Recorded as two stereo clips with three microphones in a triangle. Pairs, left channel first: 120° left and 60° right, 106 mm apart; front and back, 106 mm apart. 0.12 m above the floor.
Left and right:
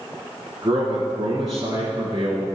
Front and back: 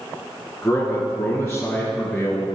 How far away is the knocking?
I don't hear knocking.